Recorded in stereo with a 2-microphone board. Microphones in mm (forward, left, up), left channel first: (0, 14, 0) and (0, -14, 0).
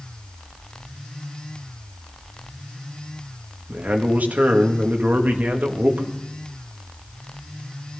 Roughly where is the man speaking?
Right.